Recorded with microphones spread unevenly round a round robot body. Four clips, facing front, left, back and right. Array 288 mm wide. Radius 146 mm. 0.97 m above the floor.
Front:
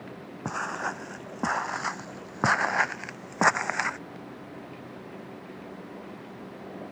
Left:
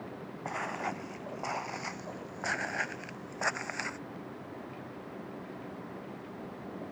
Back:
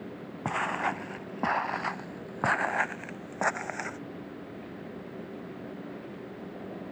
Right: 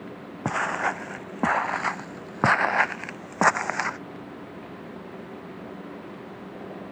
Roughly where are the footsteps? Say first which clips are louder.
Right 10 dB, back 2 dB; right.